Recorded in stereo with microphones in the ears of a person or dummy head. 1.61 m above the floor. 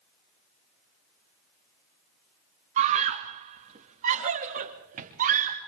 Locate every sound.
2.8 s a scream: 35° right (ahead or behind), 1.4 m; by 5.6 s 40° right (ahead or behind), 4 m